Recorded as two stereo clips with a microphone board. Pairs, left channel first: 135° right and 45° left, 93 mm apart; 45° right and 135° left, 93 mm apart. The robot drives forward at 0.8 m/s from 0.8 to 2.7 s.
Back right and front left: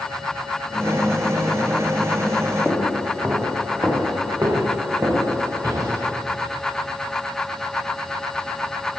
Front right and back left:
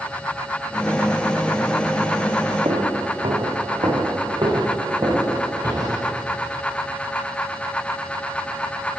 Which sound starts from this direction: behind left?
Footsteps, at 2.6 s.